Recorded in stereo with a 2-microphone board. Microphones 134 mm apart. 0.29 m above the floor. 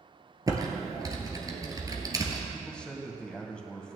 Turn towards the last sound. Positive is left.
turn(degrees=5)  # may be behind; listen again after turning